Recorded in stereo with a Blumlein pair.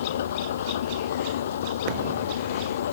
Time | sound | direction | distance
0.0 | an engine running | 60° left | ?